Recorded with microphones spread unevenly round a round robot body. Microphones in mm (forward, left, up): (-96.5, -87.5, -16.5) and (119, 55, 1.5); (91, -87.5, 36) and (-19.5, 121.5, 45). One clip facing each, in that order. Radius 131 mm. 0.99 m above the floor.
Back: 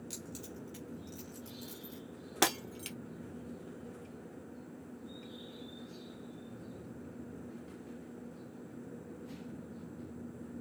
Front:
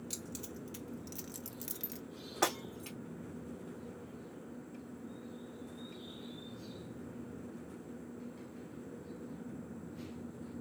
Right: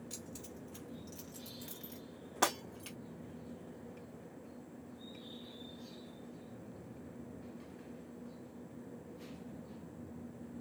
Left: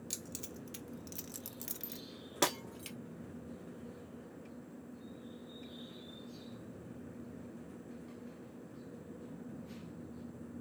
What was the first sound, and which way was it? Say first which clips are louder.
Keys jangling: front 1 dB, left 1 dB; 120° left.